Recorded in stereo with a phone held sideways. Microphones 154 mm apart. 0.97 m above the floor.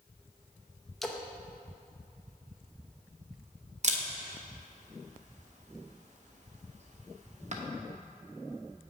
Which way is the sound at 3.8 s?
50° right (ahead or behind).